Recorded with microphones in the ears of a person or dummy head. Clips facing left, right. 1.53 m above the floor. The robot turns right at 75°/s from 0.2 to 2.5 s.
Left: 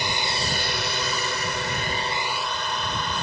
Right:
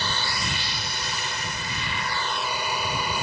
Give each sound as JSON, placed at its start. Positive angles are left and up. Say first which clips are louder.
{"t": 0.0, "sound": "a drone", "louder": "left 2 dB", "azimuth_deg": 20}